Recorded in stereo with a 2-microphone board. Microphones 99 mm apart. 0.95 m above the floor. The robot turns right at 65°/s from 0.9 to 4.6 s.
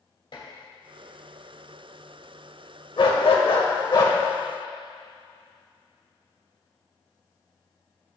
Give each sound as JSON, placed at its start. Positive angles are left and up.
{"t": 0.3, "sound": "dishes clattering", "side_deg": 60, "distance_m": 3.0}
{"t": 3.0, "sound": "a dog barking", "azimuth_deg": 60, "distance_m": 1.6}